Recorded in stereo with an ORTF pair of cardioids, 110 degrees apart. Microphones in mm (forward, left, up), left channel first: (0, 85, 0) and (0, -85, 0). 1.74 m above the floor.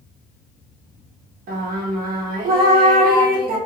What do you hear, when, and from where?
1.5 s singing: 60° right, 0.8 m